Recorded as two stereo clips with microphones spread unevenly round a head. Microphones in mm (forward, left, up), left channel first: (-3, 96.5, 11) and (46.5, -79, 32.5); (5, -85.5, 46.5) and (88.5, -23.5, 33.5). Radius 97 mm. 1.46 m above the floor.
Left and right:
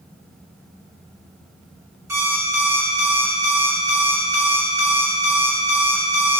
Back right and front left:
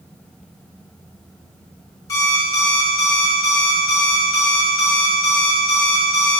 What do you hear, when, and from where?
2.1 s an alarm clock: 135° right, 1.0 m